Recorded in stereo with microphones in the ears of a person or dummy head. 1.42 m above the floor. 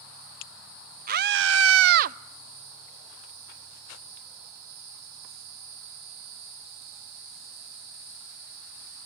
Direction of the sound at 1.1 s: 45° right (ahead or behind).